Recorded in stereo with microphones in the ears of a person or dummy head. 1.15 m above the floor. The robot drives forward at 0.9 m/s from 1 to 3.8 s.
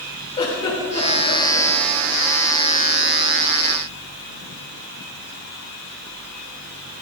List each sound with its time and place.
0.4 s a giggle: 30° left (ahead or behind), 3 m; by 1.7 s 25° left (ahead or behind), 4 m